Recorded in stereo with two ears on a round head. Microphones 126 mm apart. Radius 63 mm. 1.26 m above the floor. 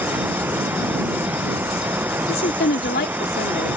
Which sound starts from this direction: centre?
Running water, at 0.0 s.